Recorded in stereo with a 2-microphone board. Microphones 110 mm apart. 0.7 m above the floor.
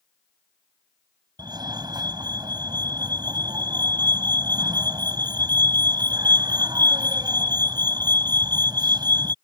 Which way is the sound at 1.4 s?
40° right (ahead or behind).